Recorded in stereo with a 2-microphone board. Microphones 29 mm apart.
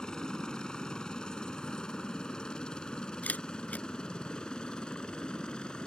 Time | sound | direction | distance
0.0 | a helicopter | 30° left (ahead or behind) | ?
3.2 | a camera shutter | 60° left (ahead or behind) | ?